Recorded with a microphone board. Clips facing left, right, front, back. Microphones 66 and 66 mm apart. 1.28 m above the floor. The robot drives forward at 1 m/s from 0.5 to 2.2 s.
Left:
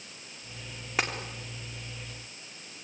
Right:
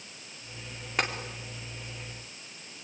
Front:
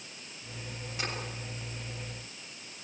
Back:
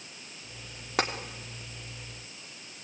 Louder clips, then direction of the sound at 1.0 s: Even, back 9 dB; 175° left.